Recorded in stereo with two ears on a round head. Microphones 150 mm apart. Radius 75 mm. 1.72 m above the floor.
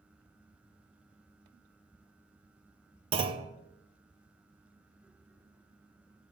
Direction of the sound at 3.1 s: 30° right (ahead or behind).